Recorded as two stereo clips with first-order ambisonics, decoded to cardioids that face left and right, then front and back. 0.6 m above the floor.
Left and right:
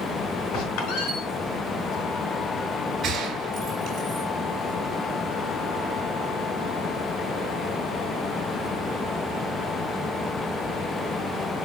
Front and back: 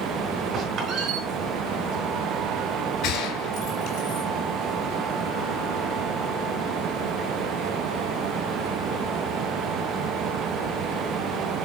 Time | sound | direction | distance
0.5 | a squeak | 120° left | 3.5 m
3.0 | a gunshot | 35° right | 3.5 m